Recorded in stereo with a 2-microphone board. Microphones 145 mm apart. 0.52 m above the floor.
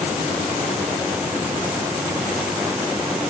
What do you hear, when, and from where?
Only background noise.